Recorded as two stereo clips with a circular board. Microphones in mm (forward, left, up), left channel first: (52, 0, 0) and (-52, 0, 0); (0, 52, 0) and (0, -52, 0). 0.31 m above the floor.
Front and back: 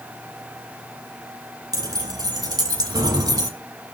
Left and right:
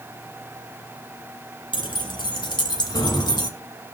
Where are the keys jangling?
130° left, 3 m.